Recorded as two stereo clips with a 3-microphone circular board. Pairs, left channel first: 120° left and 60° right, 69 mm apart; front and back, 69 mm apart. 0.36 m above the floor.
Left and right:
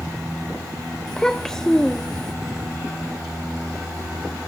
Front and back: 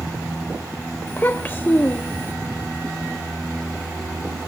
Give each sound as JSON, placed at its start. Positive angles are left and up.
{"t": 1.1, "sound": "a child speaking", "azimuth_deg": 40, "distance_m": 0.7}